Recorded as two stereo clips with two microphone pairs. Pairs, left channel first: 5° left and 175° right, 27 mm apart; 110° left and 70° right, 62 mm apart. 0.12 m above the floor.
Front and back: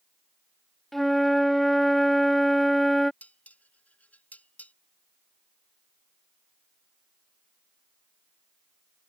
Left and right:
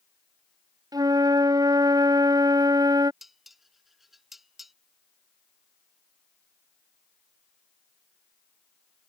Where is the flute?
75° right.